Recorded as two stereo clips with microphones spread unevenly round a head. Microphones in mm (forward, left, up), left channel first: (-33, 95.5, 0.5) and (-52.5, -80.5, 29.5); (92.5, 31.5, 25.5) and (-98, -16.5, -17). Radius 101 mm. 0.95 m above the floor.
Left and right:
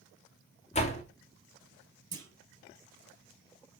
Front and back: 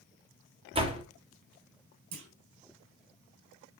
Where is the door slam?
135° left, 1.7 m.